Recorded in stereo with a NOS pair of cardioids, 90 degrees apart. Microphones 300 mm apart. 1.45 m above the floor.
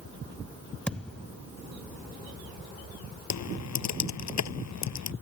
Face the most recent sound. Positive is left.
turn(degrees=60)